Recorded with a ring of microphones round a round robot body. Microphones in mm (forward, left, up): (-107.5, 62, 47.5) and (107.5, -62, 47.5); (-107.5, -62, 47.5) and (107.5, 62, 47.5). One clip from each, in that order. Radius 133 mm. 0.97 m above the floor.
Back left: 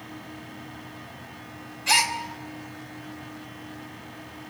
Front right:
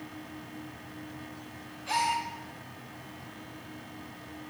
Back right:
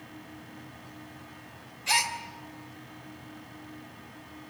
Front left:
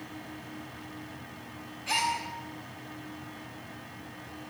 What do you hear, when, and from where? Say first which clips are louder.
1.9 s a gasp: back left 7 dB, back right 2 dB; 160° left, 3 m